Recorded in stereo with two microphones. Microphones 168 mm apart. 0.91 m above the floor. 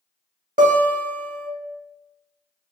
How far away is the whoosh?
I don't hear a whoosh.